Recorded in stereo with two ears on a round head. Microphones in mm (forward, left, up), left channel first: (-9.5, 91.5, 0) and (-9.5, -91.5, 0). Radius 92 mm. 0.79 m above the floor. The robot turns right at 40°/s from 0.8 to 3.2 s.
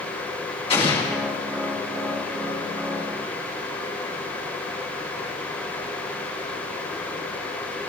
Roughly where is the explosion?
Left.